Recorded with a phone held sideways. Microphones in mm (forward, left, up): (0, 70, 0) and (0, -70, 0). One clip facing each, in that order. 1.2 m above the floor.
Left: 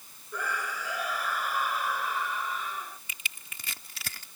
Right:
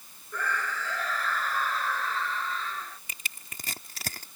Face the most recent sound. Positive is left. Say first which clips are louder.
# even
turn(degrees=-45)  # may be behind; listen again after turning